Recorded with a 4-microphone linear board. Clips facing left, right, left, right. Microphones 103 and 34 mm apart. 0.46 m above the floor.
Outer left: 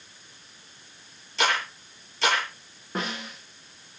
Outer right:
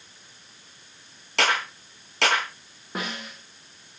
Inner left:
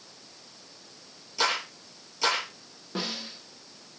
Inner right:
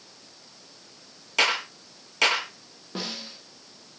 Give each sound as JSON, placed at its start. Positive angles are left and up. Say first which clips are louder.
{"t": 1.4, "sound": "a clap", "louder": "outer right 1 dB, inner right 4 dB", "side_deg": -85, "distance_m": 8.0}
{"t": 3.0, "sound": "a snare drum", "louder": "outer left 1 dB, inner left 1 dB", "side_deg": -5, "distance_m": 8.5}